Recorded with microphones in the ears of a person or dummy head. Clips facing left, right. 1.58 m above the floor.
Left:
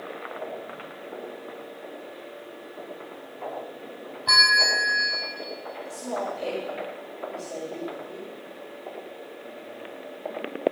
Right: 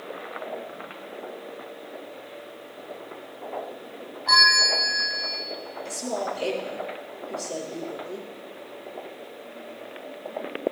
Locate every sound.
4.3 s a bell: 40° left (ahead or behind), 2.5 m
5.8 s a woman speaking: 45° right (ahead or behind), 6 m